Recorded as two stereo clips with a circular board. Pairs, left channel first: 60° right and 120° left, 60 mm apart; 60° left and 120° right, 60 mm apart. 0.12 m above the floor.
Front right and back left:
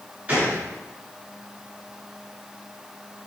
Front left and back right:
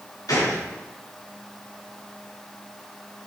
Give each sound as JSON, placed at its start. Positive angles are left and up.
{"t": 0.3, "sound": "a gunshot", "azimuth_deg": 55, "distance_m": 4.5}